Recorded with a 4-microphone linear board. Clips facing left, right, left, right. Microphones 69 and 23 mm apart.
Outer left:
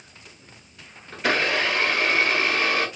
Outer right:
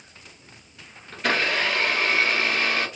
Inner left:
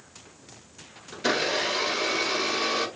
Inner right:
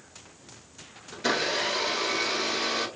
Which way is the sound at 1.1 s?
5° left (ahead or behind).